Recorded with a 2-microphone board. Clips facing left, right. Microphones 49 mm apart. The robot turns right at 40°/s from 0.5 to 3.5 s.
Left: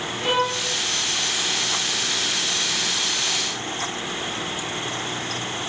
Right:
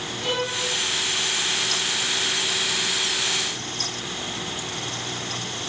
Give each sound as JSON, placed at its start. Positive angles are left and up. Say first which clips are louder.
{"t": 0.2, "sound": "a violin", "louder": "left 4 dB", "side_deg": 25, "distance_m": 3.0}